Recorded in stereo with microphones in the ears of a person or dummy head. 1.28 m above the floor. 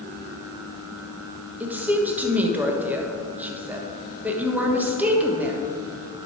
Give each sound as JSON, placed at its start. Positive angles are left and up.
{"t": 1.6, "sound": "a woman speaking", "side_deg": -5, "distance_m": 1.3}